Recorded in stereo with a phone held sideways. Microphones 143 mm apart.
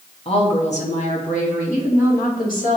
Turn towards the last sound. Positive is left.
turn(degrees=75)  # may be behind; listen again after turning